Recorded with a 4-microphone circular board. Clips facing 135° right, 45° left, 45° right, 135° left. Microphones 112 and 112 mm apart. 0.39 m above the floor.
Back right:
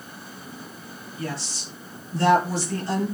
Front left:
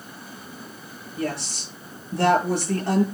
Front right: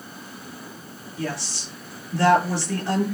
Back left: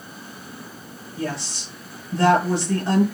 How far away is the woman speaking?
About 7 m.